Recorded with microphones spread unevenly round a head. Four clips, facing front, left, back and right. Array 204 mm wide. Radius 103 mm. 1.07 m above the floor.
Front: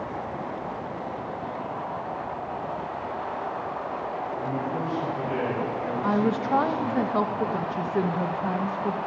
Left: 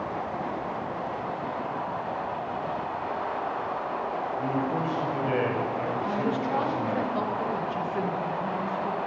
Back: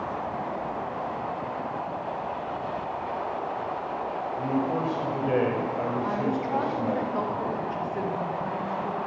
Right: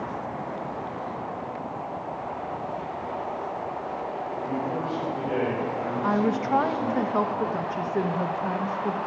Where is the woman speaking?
35° right, 1.3 m.